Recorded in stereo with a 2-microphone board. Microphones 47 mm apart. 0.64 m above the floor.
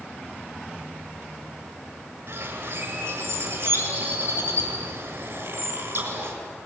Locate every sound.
2.3 s a bird: 45° right (ahead or behind), 7 m